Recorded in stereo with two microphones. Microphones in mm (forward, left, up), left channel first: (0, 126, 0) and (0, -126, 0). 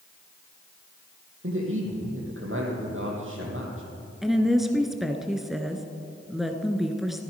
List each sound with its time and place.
1.4 s a man speaking: 55° right (ahead or behind), 3.5 m
4.2 s a woman speaking: centre (ahead or behind), 1.1 m